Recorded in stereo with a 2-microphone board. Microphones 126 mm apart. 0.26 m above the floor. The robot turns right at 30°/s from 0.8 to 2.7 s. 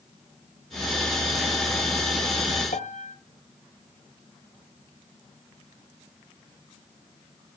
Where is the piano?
80° left, 1.2 m.